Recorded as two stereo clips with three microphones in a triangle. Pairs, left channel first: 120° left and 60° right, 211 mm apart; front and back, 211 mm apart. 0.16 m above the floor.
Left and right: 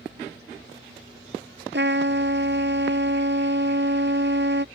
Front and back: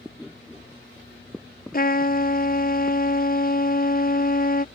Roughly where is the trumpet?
Ahead right.